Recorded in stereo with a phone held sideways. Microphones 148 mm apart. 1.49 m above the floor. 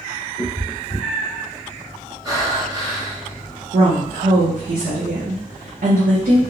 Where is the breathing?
25° right (ahead or behind), 1.8 m.